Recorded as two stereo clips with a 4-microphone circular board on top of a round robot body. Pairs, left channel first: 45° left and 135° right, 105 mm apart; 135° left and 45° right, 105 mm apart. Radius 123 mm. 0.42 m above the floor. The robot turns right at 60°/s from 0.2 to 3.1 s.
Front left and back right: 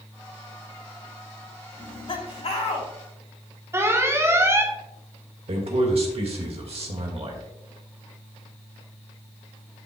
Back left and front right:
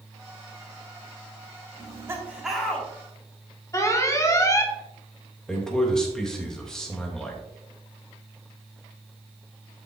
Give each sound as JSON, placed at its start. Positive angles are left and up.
{"t": 1.8, "sound": "laughter", "azimuth_deg": 0, "distance_m": 3.0}
{"t": 3.7, "sound": "an alarm", "azimuth_deg": 175, "distance_m": 1.4}
{"t": 5.5, "sound": "a man speaking", "azimuth_deg": -140, "distance_m": 2.0}